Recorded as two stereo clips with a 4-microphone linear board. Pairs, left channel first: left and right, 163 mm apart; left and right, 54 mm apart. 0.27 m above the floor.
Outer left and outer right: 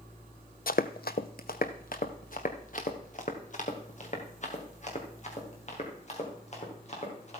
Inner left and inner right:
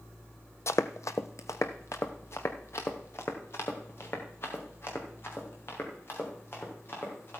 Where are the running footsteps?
65° left (ahead or behind), 0.5 m; by 7.4 s 45° left (ahead or behind), 4.5 m.